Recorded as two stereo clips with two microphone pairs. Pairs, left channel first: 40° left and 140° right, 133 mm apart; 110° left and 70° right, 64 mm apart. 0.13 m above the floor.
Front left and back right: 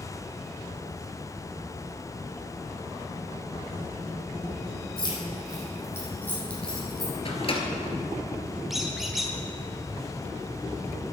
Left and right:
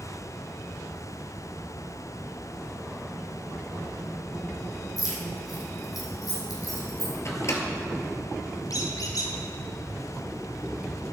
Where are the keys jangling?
90° left, 4 m; by 7.1 s 130° left, 4.5 m.